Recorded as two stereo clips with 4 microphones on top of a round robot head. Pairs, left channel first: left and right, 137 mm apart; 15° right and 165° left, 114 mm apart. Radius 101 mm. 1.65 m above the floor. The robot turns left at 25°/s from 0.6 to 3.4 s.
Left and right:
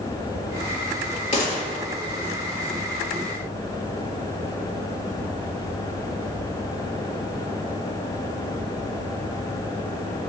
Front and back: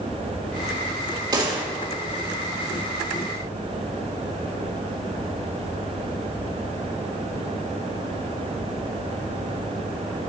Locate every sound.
1.3 s a gunshot: 120° left, 3.5 m; by 1.6 s 110° left, 3.5 m